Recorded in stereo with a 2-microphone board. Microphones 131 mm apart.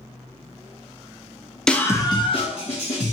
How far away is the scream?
About 0.6 m.